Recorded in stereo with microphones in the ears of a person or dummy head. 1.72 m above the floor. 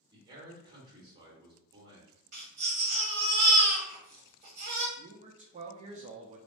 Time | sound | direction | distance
0.1 | a man speaking | 25° right (ahead or behind) | 1.2 m
2.3 | a baby crying | 45° right (ahead or behind) | 1.2 m
5.0 | a man speaking | 35° right (ahead or behind) | 0.5 m